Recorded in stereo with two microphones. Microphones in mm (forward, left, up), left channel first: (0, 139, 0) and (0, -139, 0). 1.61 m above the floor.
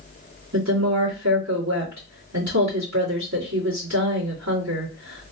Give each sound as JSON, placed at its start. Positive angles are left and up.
{"t": 0.5, "sound": "a woman speaking", "side_deg": -75, "distance_m": 2.5}